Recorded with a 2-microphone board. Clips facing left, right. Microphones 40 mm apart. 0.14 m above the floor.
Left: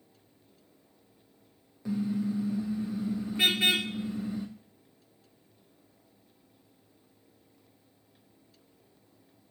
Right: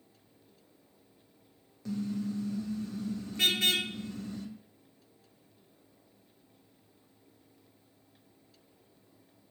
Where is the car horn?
15° left (ahead or behind), 3 m.